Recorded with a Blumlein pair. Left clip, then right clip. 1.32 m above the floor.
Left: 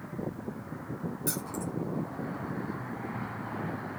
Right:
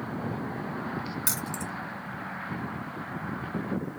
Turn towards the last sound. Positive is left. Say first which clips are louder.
# even
turn(degrees=-60)